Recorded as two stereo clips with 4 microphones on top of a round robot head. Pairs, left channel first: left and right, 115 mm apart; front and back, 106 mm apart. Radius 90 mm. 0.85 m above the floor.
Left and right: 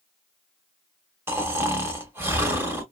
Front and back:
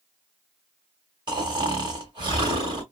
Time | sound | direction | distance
1.3 | snoring | 150° right | 0.7 m